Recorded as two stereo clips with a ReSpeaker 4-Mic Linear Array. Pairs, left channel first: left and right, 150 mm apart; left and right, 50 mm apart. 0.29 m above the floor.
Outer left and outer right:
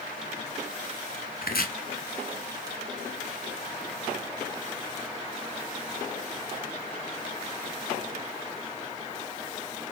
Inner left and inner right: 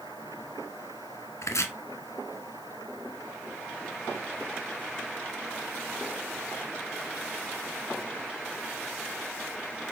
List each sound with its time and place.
1.4 s chopping: 80° left, 1.0 m